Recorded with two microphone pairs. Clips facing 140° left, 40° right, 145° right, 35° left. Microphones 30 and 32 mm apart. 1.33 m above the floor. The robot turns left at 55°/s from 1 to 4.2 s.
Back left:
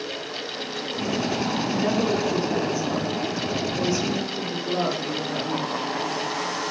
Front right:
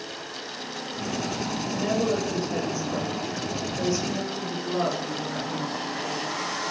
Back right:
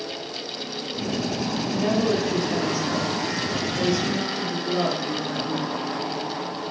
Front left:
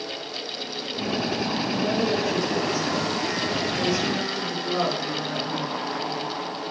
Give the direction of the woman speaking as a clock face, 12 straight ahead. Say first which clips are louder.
Back left 1 dB, back right 3 dB; 6 o'clock.